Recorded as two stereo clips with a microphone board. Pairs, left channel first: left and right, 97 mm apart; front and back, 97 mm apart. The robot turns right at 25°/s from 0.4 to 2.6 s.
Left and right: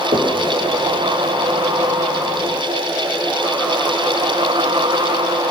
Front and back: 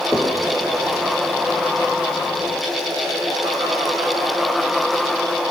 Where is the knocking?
80° right, 3.5 m.